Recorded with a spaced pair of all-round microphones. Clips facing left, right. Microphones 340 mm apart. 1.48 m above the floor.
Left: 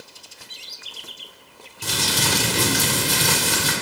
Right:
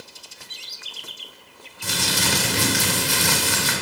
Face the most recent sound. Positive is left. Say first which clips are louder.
# left 1 dB
turn(degrees=45)  # may be behind; listen again after turning